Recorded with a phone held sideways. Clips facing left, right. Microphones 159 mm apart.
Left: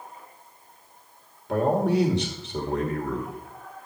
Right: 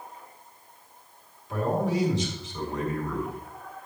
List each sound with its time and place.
1.5 s a man speaking: 65° left (ahead or behind), 2 m